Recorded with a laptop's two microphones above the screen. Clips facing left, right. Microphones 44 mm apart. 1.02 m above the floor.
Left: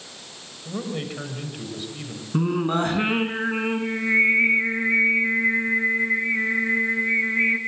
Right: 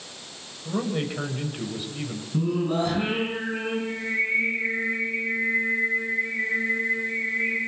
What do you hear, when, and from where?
0.7 s a man speaking: 5° right (ahead or behind), 6.5 m
2.3 s singing: 50° left (ahead or behind), 5 m